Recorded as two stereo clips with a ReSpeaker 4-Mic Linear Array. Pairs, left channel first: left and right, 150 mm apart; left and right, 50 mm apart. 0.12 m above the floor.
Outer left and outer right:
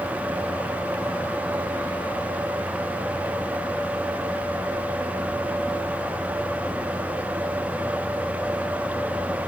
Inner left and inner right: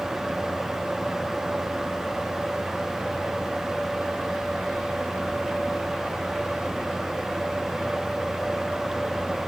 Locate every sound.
Only background noise.